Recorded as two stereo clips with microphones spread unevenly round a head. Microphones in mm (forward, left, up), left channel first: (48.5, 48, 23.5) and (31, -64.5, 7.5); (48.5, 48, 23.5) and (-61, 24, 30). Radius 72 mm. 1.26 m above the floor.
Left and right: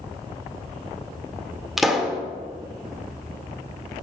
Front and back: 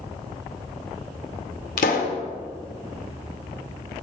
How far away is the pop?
About 2.0 m.